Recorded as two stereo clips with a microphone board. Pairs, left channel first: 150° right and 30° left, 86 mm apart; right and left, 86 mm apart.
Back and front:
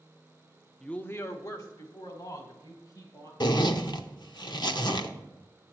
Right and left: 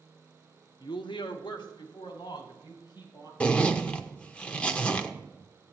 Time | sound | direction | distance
0.8 | a woman speaking | 65° right | 0.6 m
3.4 | a zipper | 160° right | 0.7 m